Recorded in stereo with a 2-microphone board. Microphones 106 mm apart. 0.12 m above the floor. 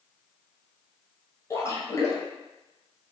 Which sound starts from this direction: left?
A splash, at 1.5 s.